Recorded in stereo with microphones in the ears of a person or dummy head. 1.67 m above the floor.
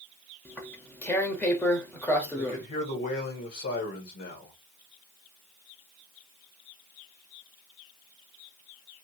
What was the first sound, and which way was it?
Tearing paper, 10° left (ahead or behind).